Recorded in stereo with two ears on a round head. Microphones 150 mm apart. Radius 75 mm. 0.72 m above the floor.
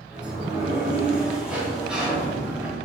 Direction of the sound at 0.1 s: 5° right (ahead or behind).